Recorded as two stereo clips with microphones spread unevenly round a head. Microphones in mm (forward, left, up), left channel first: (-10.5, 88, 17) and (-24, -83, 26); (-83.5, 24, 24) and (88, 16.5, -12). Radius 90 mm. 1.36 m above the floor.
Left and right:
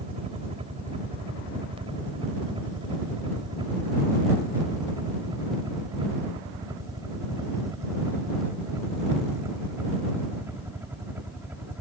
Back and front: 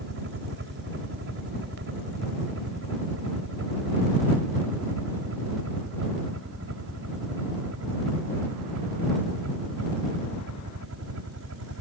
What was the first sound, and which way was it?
A helicopter, 35° right.